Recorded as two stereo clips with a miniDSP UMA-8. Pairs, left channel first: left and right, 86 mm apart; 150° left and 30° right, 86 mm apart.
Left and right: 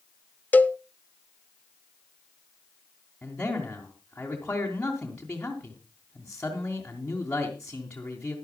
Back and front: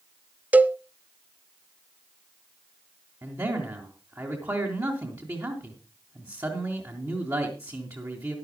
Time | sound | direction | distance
0.5 | a cowbell | 30° left | 0.6 m
3.2 | a man speaking | 15° left | 3 m